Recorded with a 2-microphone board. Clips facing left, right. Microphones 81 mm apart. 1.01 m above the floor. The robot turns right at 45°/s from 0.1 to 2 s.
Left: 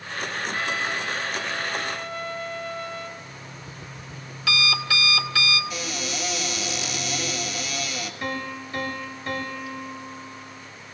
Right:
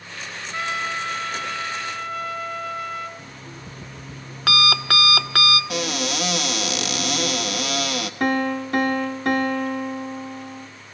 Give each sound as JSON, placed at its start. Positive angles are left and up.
{"t": 0.5, "sound": "a trumpet", "azimuth_deg": -160, "distance_m": 3.0}
{"t": 3.2, "sound": "an alarm clock", "side_deg": -60, "distance_m": 1.4}
{"t": 5.7, "sound": "a cupboard door", "side_deg": -70, "distance_m": 1.4}
{"t": 8.2, "sound": "a piano", "side_deg": -80, "distance_m": 2.0}